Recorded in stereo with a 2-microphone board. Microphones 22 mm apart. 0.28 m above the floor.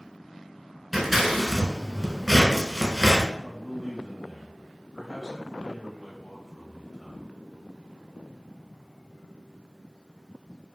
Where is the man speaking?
20° left (ahead or behind), 0.9 m.